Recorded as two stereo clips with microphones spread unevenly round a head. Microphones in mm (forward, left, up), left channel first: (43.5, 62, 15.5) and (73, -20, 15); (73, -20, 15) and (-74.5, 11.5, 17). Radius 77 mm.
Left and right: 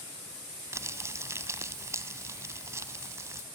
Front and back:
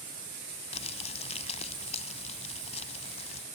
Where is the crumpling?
35° right, 0.9 m.